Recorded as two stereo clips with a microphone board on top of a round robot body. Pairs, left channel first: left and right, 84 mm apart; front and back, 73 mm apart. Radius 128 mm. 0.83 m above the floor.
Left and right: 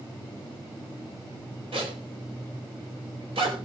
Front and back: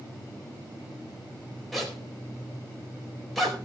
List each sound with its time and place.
1.7 s a zipper: 90° right, 4 m